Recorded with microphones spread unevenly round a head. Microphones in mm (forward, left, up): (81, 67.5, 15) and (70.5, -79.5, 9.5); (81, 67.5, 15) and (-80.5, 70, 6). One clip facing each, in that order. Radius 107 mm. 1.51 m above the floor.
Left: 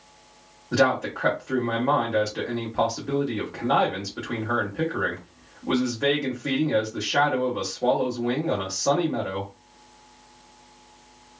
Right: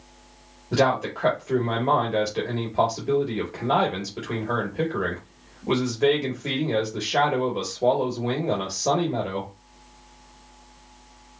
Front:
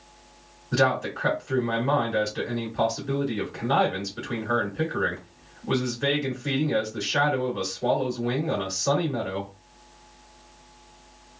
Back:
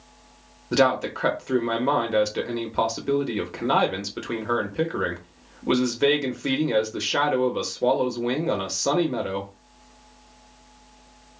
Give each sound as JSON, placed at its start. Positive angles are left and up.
{"t": 0.7, "sound": "a man speaking", "azimuth_deg": -170, "distance_m": 1.4}